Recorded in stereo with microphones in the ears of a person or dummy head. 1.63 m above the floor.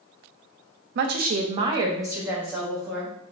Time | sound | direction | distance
0.9 | a woman speaking | 60° right (ahead or behind) | 0.5 m